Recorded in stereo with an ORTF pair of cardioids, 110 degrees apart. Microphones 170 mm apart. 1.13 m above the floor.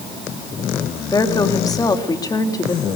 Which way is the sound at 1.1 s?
20° left.